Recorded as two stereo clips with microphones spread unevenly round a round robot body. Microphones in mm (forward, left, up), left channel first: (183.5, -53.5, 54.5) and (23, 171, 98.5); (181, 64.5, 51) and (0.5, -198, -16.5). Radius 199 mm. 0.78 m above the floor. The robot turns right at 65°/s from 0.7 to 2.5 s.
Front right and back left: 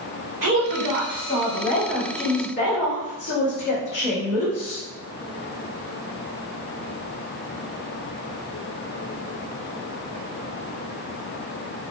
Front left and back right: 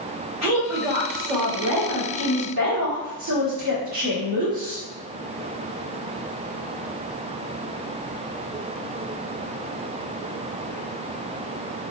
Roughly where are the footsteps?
I don't hear footsteps.